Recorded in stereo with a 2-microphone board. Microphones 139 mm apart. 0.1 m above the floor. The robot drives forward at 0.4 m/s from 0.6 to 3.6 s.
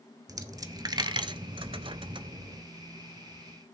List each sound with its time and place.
0.3 s a dropped coin: 25° right (ahead or behind), 0.7 m; by 2.6 s 30° right (ahead or behind), 0.6 m